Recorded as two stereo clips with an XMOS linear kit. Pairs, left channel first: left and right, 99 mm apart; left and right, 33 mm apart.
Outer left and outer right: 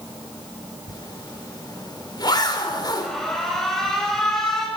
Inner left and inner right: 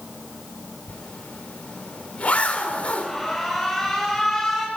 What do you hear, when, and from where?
0.9 s a zipper: 45° left (ahead or behind), 3 m
3.0 s an alarm: 5° left (ahead or behind), 6.5 m